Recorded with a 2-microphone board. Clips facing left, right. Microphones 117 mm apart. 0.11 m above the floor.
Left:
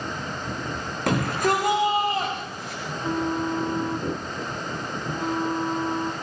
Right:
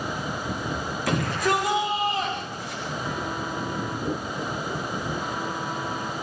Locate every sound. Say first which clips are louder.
1.1 s a shout: left 2 dB; 60° left (ahead or behind), 10 m
2.9 s a phone buzzing: left 6 dB; 30° left (ahead or behind), 1.7 m